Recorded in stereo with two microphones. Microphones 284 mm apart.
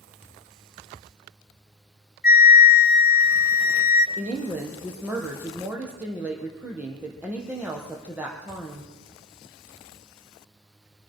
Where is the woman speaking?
5° right (ahead or behind), 4 m.